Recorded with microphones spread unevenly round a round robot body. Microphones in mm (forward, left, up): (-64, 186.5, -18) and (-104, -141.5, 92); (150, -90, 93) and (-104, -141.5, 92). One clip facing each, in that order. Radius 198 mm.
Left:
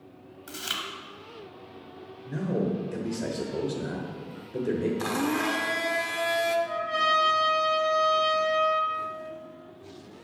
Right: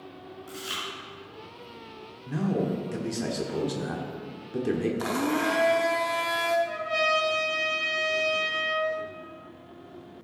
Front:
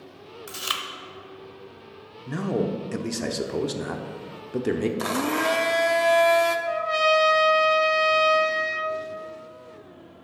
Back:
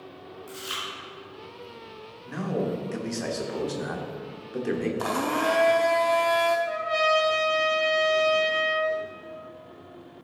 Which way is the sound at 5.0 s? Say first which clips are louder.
Right 1 dB, front 2 dB; 45° left.